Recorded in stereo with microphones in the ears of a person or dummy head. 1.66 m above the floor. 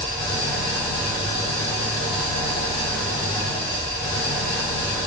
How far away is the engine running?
About 1.1 m.